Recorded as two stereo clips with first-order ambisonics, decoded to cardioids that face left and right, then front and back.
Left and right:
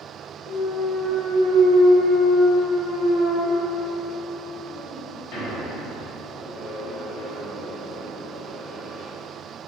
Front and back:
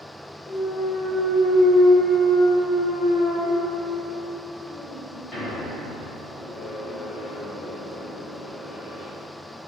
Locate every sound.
0.5 s a clunk: 65° left, 1.6 m